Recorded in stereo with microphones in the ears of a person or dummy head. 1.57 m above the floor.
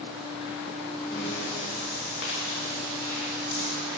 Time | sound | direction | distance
1.1 | breathing | 65° left (ahead or behind) | 3 m